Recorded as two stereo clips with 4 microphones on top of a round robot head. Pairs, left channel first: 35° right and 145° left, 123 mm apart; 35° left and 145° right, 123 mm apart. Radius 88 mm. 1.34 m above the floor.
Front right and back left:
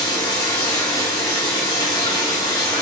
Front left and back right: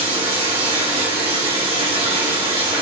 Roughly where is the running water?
Right.